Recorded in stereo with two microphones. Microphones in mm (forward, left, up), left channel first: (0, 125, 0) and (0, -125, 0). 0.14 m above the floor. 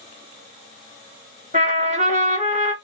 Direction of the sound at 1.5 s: 30° right (ahead or behind).